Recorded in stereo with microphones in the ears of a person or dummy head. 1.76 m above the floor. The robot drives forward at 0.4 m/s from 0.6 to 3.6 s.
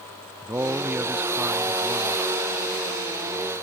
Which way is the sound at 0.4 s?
10° right (ahead or behind).